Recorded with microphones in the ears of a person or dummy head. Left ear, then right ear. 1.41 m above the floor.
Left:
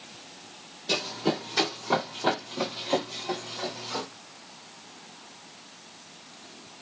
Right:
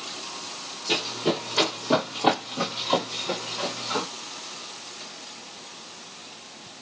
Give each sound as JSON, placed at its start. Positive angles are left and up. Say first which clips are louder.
{"t": 0.9, "sound": "running footsteps", "louder": "right 2 dB", "side_deg": 25, "distance_m": 2.0}